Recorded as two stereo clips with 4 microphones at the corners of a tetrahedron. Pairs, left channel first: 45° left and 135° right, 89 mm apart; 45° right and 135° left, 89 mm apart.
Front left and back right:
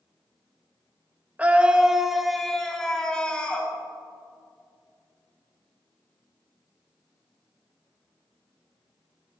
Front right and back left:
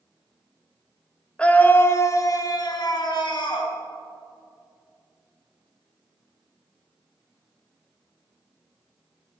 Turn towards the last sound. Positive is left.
turn(degrees=-35)